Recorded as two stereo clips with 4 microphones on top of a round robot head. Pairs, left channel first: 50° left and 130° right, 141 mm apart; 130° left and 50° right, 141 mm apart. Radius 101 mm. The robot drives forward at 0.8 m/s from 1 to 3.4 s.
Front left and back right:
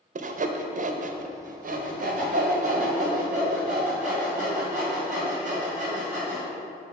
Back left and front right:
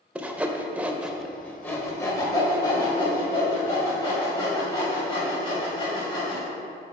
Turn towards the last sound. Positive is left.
turn(degrees=-170)